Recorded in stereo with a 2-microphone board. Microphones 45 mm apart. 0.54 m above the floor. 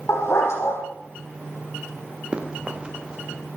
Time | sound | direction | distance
0.1 | a dog barking | 65° left (ahead or behind) | 6.5 m
2.3 | running footsteps | 20° right (ahead or behind) | 3.5 m